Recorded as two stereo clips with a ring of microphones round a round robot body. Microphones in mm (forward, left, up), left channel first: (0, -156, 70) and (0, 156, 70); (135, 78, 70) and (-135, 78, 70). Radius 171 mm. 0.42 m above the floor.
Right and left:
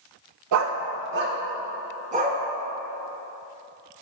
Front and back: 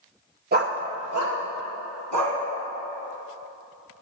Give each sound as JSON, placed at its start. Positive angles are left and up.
{"t": 0.5, "sound": "a dog barking", "azimuth_deg": 120, "distance_m": 0.6}